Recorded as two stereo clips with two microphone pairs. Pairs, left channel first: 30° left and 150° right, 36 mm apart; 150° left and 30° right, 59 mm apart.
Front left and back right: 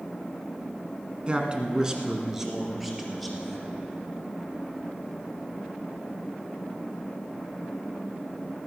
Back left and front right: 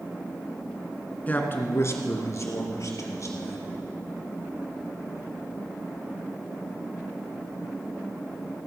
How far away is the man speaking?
About 1.3 m.